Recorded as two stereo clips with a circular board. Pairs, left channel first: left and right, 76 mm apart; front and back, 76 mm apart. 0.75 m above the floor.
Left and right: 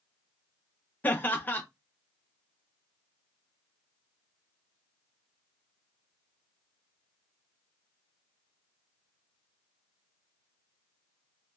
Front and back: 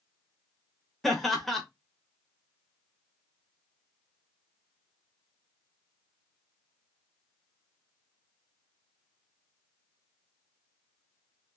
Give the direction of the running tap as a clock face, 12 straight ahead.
No running tap in this recording.